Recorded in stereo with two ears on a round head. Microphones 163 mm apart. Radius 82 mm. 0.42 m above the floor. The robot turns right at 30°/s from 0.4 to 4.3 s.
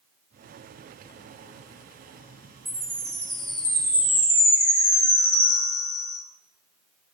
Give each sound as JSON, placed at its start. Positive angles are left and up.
{"t": 2.6, "sound": "a chime", "azimuth_deg": -10, "distance_m": 1.9}